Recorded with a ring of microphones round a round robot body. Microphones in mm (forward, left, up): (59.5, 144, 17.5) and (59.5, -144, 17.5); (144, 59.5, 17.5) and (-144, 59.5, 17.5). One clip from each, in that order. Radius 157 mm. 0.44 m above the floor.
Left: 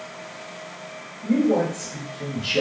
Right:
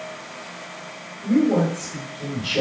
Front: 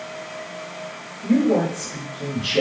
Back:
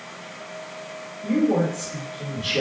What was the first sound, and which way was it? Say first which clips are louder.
A man speaking: right 1 dB, front 2 dB; 120° left.